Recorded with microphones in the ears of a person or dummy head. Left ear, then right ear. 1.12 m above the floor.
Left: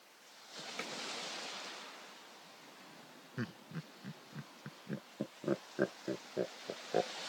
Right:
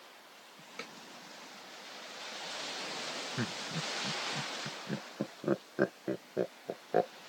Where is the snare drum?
25° left (ahead or behind).